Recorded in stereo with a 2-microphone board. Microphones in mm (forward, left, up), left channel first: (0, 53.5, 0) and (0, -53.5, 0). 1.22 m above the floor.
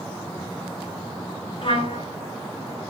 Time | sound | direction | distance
1.6 | a trumpet | 55° left (ahead or behind) | 3.5 m